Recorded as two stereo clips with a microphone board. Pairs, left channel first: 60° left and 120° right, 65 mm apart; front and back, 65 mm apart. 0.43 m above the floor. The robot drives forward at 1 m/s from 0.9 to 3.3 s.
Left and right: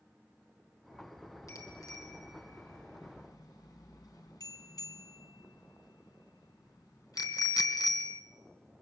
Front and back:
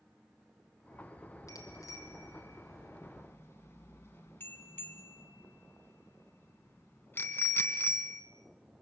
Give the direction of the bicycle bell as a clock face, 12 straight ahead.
11 o'clock.